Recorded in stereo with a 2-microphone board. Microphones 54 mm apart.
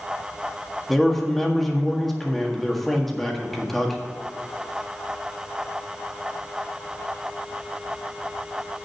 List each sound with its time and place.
0.9 s a man speaking: 5° left (ahead or behind), 1.7 m